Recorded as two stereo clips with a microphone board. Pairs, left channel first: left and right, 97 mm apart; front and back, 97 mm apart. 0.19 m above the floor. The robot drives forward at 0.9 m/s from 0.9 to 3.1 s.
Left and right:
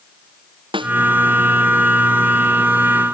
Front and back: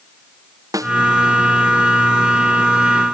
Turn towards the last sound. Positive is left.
turn(degrees=-130)